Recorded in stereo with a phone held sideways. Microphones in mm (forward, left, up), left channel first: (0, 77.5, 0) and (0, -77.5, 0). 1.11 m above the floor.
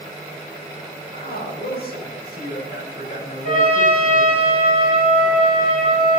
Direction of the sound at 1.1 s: 75° left (ahead or behind).